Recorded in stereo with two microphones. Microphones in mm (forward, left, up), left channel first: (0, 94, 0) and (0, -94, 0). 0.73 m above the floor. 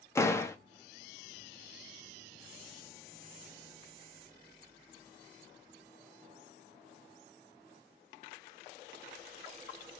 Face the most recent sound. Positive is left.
turn(degrees=15)  # may be behind; listen again after turning